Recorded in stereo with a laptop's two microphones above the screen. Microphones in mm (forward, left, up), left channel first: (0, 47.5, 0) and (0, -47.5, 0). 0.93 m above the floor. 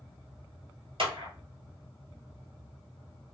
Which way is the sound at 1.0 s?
65° right (ahead or behind).